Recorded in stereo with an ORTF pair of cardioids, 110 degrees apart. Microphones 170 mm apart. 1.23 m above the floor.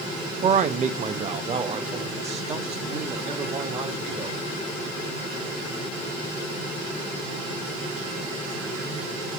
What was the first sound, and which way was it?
A man speaking, 45° right.